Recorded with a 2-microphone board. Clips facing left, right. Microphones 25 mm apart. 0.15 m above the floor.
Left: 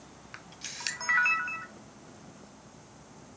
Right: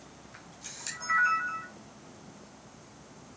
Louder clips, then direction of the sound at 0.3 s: Left 6 dB; 55° left (ahead or behind).